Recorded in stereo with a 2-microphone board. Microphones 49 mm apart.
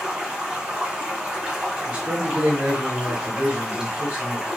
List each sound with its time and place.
0.0 s running water: 15° right (ahead or behind), 1.2 m
1.9 s a man speaking: 30° right (ahead or behind), 1.1 m